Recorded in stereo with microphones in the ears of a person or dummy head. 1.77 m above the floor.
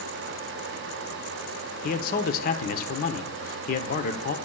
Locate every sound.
1.8 s a man speaking: 40° left (ahead or behind), 1.0 m